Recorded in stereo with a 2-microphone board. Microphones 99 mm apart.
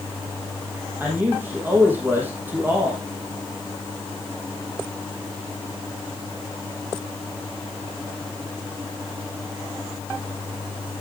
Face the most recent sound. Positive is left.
turn(degrees=-20)  # may be behind; listen again after turning